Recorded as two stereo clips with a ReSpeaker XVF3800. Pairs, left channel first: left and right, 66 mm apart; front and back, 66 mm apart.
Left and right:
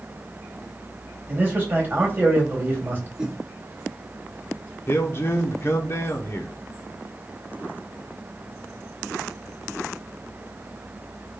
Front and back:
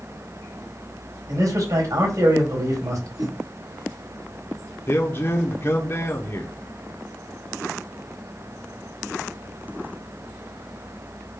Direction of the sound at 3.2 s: 165° right.